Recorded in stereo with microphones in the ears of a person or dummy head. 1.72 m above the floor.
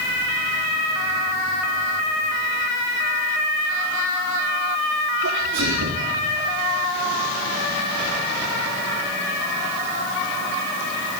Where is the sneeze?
75° right (ahead or behind), 4 m.